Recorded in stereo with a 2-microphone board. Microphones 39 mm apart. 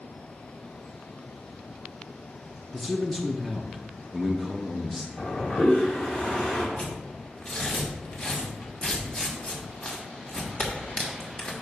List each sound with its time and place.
2.7 s a man speaking: 5° left (ahead or behind), 0.6 m
5.2 s a toilet flushing: 30° left (ahead or behind), 3 m
6.8 s tearing paper: 30° left (ahead or behind), 1.5 m